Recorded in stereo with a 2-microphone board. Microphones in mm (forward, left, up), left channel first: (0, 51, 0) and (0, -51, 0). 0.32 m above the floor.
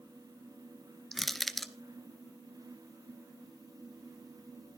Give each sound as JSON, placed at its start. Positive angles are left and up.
{"t": 1.1, "sound": "crushing", "side_deg": 0, "distance_m": 1.0}